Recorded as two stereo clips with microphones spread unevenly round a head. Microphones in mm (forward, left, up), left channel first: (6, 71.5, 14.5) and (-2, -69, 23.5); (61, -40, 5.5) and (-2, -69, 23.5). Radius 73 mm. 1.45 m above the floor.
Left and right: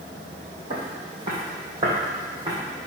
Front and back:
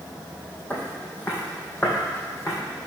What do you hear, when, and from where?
0.7 s footsteps: 45° right, 3.5 m; by 2.5 s 30° right, 4.5 m